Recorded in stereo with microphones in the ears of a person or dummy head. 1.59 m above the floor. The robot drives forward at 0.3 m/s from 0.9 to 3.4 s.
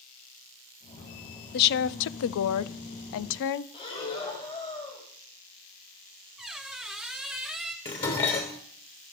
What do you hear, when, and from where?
1.5 s a woman speaking: 55° left (ahead or behind), 0.6 m; by 3.6 s 60° left (ahead or behind), 0.5 m
3.7 s breathing: 25° left (ahead or behind), 3 m
6.4 s a squeak: centre (ahead or behind), 0.9 m
7.8 s dishes clattering: 20° left (ahead or behind), 0.6 m